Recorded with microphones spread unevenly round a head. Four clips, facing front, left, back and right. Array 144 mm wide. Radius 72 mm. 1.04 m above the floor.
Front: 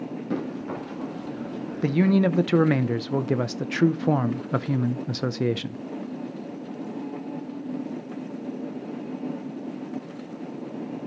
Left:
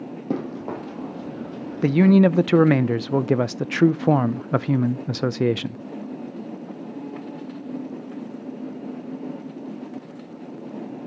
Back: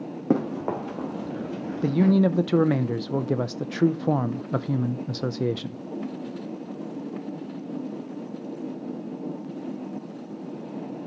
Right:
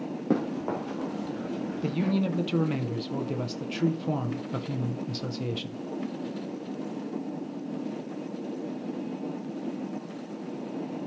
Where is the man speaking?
90° left, 0.5 m.